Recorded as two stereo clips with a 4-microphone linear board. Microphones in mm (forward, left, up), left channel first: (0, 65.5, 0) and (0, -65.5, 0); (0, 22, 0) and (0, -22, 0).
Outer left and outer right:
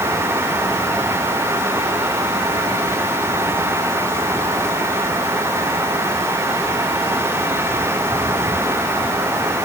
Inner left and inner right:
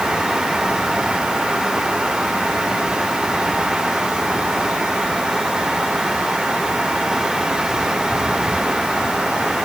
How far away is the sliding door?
I don't hear a sliding door.